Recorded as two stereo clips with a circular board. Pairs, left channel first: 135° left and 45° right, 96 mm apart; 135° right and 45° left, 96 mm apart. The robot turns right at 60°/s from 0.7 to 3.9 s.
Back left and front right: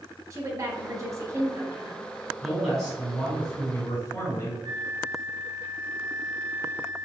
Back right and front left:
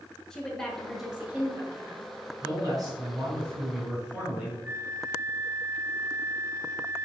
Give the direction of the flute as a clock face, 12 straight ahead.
1 o'clock.